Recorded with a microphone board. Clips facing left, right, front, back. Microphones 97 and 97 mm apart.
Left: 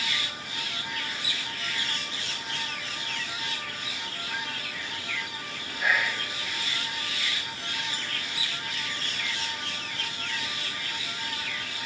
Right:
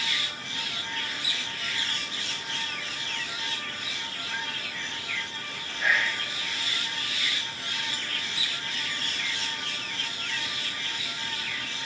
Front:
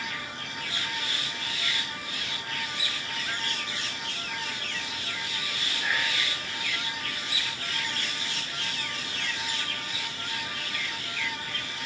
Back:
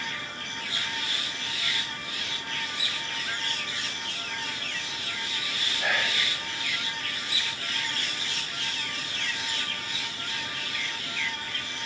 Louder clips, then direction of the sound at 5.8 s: Even, back 2 dB; 175° left.